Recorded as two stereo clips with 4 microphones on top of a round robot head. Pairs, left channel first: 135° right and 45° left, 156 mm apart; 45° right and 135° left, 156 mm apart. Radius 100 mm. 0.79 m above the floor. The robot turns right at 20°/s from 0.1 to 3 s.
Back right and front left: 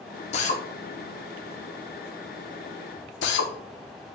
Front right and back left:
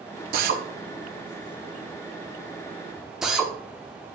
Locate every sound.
0.3 s a drill: 170° left, 1.0 m; by 3.5 s 135° right, 1.0 m